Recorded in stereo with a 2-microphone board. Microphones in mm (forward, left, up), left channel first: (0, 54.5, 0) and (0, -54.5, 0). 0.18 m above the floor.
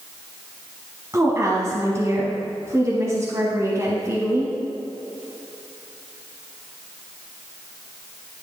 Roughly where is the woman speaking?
Right.